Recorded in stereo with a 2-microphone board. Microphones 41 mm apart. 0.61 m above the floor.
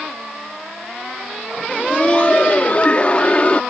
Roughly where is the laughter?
Left.